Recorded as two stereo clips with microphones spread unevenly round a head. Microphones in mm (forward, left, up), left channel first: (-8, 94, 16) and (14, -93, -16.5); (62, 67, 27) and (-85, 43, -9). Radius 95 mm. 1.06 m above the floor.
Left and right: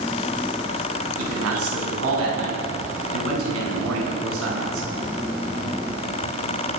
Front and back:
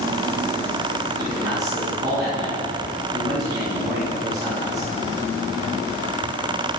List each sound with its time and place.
1.2 s a man speaking: 95° right, 9.5 m